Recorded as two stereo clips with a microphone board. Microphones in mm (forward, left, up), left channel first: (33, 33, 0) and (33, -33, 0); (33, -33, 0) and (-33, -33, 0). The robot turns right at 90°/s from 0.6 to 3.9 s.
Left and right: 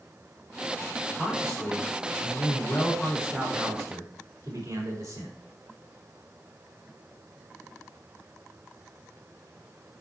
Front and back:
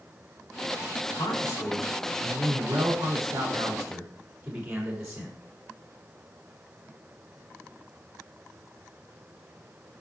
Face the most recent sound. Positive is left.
turn(degrees=-100)